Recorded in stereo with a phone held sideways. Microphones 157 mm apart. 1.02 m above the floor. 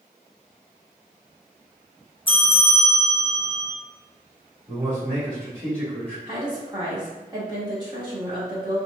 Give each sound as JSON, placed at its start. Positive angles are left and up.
{"t": 2.3, "sound": "a bell", "side_deg": 35, "distance_m": 0.5}
{"t": 4.7, "sound": "a man speaking", "side_deg": -30, "distance_m": 1.8}
{"t": 6.3, "sound": "a woman speaking", "side_deg": -30, "distance_m": 1.7}